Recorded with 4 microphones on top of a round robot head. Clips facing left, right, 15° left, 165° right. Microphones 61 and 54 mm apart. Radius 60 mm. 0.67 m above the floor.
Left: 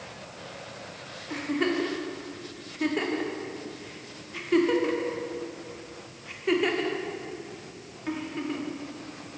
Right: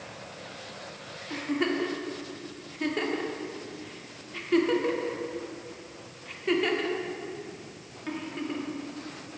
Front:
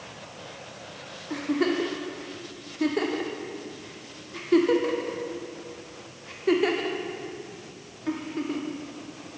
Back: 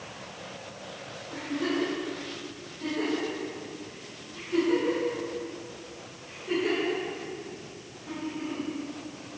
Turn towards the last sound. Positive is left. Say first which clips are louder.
# left 1 dB, front 5 dB
turn(degrees=5)